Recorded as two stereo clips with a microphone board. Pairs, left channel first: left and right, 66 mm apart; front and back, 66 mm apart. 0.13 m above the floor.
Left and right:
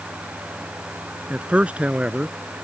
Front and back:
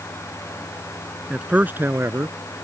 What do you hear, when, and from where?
1.3 s a man speaking: 125° right; by 2.4 s 155° right